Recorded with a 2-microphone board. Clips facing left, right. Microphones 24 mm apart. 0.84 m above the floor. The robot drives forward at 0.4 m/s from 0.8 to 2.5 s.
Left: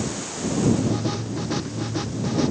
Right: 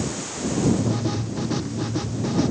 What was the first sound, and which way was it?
Only background noise.